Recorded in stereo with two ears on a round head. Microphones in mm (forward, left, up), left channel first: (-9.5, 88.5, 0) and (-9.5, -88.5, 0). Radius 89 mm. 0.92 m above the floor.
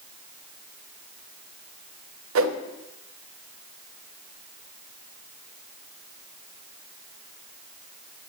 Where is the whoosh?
70° right (ahead or behind), 0.5 m.